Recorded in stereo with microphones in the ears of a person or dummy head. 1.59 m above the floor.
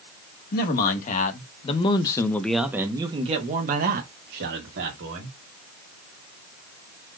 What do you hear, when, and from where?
0.5 s a man speaking: 55° left (ahead or behind), 1.5 m; by 5.3 s 70° right (ahead or behind), 1.7 m